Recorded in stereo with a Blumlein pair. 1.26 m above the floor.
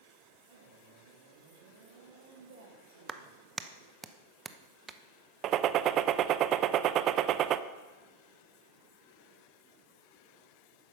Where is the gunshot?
30° right, 0.5 m.